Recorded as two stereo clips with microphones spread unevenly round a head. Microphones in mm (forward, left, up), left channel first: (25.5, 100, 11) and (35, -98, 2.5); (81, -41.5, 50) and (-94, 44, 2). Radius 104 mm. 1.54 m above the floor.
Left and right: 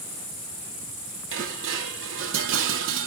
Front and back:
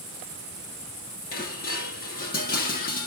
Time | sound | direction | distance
1.3 | dishes clattering | 65° right | 2 m